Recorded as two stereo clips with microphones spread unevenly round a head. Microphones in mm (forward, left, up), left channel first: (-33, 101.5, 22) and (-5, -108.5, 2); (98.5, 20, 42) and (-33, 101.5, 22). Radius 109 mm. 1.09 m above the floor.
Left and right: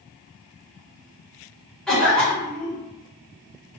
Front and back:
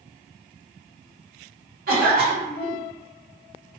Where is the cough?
175° right, 1.5 m.